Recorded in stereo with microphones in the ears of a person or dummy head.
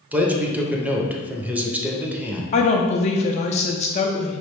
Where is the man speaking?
10° right (ahead or behind), 0.6 m.